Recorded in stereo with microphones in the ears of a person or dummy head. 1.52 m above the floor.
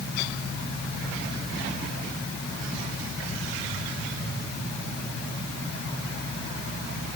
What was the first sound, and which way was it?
Only background noise.